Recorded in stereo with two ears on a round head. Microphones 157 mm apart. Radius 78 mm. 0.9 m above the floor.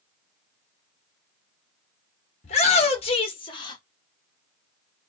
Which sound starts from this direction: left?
A shout, at 2.4 s.